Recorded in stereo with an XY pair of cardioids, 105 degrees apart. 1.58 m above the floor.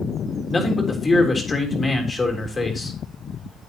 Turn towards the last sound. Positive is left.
turn(degrees=25)